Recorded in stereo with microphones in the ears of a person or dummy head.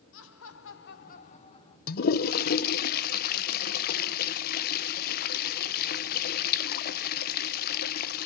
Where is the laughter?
65° left (ahead or behind), 1.1 m; by 1.8 s 30° left (ahead or behind), 2.0 m.